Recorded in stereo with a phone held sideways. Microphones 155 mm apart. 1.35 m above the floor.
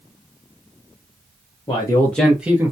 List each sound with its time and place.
1.7 s a man speaking: 30° left (ahead or behind), 0.7 m; by 2.7 s 15° right (ahead or behind), 0.8 m